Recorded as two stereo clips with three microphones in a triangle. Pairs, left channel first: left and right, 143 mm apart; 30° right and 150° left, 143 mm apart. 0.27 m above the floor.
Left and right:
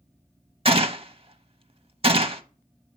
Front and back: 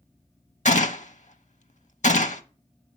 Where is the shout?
I don't hear a shout.